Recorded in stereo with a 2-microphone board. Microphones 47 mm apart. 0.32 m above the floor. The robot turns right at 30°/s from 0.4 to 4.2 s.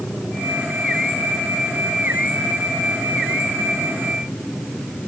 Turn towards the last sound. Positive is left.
No sound to turn to.